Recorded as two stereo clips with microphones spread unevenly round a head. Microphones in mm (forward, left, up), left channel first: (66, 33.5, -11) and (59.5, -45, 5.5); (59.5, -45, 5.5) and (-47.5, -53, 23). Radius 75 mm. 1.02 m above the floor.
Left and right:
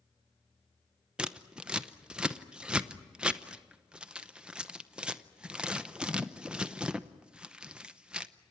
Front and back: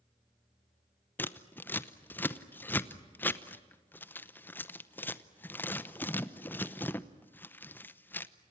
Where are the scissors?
5° right, 0.8 m.